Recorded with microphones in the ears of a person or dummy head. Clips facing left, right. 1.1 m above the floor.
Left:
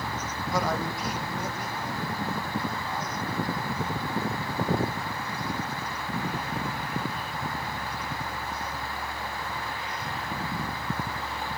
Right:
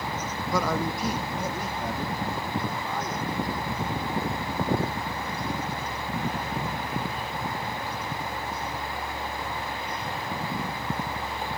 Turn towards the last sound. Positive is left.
turn(degrees=-55)  # may be behind; listen again after turning